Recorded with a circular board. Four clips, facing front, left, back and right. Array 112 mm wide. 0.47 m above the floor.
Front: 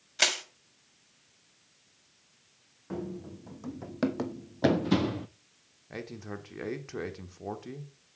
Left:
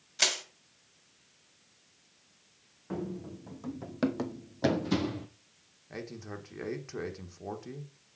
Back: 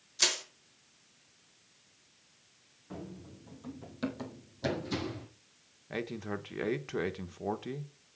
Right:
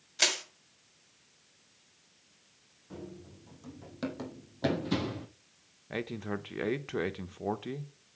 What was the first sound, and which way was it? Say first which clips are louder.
Crushing: right 1 dB, front 5 dB; straight ahead.